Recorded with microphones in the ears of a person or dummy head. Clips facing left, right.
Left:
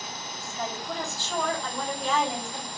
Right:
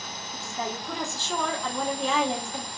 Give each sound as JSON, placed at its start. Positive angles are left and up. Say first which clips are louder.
{"t": 0.3, "sound": "a woman speaking", "louder": "right 2 dB", "side_deg": -60, "distance_m": 1.3}